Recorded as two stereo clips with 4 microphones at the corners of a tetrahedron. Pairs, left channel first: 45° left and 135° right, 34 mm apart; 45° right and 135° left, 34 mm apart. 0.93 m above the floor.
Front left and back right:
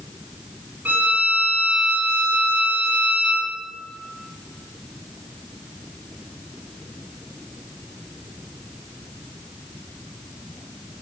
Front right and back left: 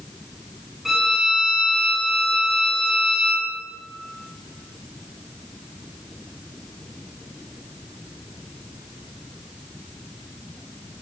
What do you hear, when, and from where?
0.8 s a violin: 150° right, 5.5 m